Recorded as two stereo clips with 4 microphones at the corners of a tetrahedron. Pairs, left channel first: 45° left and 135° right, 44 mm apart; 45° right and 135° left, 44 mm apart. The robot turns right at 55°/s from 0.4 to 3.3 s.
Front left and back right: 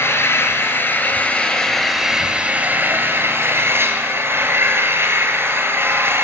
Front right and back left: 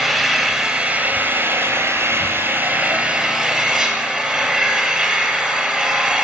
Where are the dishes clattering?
I don't hear dishes clattering.